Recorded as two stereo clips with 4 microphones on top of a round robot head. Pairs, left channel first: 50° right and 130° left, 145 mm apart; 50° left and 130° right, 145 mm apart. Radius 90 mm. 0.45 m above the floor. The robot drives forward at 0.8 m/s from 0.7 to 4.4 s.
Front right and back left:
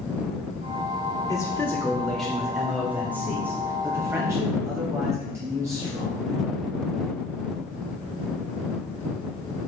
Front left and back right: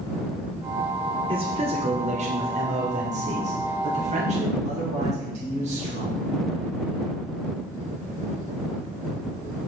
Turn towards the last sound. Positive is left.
turn(degrees=-165)